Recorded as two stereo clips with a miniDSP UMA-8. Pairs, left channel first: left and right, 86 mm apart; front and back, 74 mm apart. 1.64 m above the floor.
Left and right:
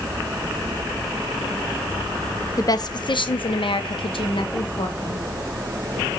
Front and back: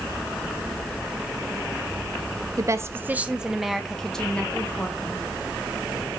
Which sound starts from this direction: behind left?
A woman speaking, at 2.6 s.